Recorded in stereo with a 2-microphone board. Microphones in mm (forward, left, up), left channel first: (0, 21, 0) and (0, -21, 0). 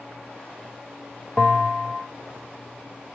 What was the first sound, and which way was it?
A bell, 15° left (ahead or behind).